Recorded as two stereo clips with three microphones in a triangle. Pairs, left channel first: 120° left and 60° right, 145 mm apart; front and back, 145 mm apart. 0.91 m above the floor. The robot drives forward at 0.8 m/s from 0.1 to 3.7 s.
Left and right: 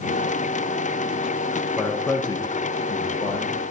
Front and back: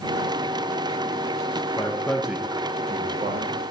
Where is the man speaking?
45° left, 0.8 m; by 3.6 s 165° left, 1.3 m.